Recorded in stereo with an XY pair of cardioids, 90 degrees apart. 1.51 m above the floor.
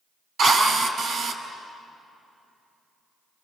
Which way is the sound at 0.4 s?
65° right.